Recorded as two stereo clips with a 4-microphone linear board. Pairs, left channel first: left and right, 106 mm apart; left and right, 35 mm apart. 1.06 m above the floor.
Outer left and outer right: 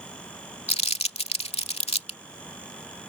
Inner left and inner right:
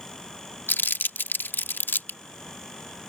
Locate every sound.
0.7 s crumpling: 80° left